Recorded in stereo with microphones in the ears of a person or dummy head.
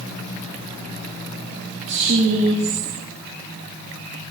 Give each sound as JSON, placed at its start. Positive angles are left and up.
{"t": 1.9, "sound": "a woman speaking", "side_deg": -50, "distance_m": 2.0}